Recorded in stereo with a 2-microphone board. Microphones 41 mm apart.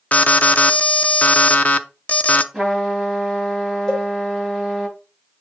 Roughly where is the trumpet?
Centre.